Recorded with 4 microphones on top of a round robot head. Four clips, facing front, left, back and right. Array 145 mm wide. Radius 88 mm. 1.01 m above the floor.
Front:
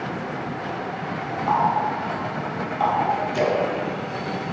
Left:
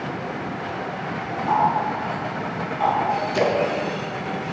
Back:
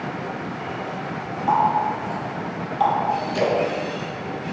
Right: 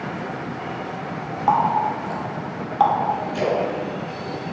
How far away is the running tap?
About 1.8 m.